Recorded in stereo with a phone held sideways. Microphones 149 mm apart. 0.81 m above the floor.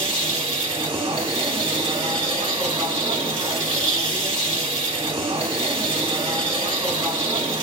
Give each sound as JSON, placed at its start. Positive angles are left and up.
{"t": 0.0, "sound": "a machine running", "side_deg": -35, "distance_m": 1.8}